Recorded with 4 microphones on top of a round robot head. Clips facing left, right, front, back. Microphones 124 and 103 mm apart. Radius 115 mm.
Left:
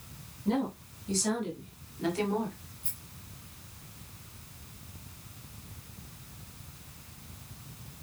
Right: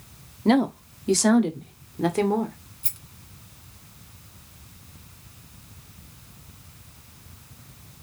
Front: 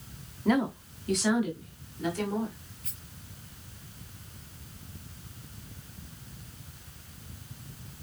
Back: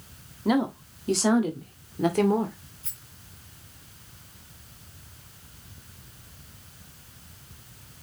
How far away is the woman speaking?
About 1.5 m.